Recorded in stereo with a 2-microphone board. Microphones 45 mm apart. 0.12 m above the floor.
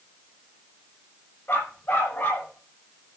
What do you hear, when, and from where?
1.5 s a dog barking: 45° left (ahead or behind), 8 m